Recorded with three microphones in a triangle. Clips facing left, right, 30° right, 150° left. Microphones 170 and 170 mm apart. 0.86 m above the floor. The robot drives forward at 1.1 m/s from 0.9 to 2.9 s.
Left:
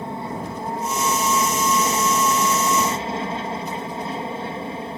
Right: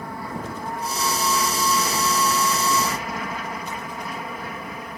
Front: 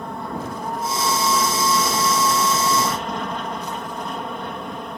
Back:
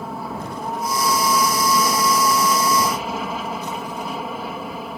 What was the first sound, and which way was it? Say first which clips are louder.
An aircraft: left 3 dB, even; 70° left.